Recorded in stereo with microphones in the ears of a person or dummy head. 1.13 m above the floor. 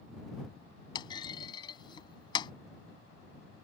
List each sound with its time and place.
0.9 s a clunk: 30° left (ahead or behind)